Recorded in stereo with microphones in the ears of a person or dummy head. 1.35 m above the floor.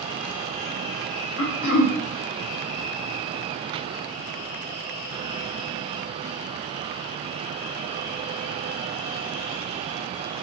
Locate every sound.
1.4 s throat clearing: 85° left, 0.6 m